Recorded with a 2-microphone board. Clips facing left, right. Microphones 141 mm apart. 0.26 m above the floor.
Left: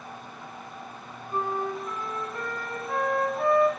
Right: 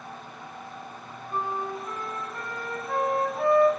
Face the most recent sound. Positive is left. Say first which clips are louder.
# left 2 dB
turn(degrees=-25)  # may be behind; listen again after turning